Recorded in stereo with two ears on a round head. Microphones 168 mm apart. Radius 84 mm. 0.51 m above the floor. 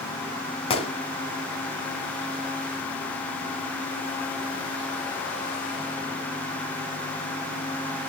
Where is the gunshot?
30° left (ahead or behind), 2.5 m.